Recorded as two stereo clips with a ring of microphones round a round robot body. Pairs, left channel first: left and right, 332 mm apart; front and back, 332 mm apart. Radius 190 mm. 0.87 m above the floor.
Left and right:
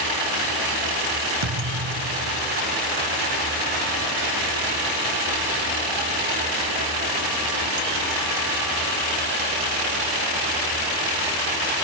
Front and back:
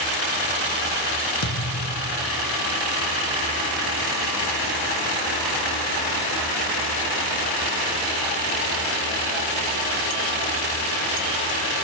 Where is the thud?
45° right, 2 m.